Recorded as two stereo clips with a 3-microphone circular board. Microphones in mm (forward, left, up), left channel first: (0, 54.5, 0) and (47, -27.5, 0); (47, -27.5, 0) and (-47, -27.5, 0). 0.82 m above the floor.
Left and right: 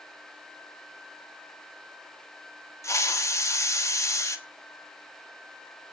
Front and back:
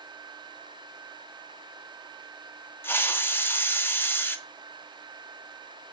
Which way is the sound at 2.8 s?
65° left.